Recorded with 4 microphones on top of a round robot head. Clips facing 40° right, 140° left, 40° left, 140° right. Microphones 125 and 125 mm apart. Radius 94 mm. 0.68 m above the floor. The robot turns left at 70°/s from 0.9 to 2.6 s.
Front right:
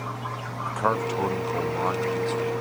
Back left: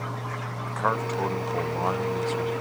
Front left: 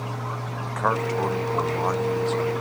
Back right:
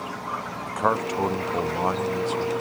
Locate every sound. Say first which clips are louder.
0.7 s a man speaking: front right 2 dB, even; 90° right; by 2.5 s 155° left